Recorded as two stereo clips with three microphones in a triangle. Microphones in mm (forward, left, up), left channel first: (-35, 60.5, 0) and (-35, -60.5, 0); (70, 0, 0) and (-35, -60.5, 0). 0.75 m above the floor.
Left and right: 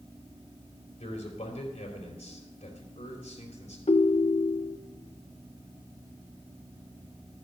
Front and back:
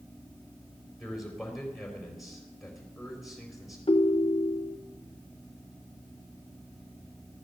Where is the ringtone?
65° left, 0.7 m.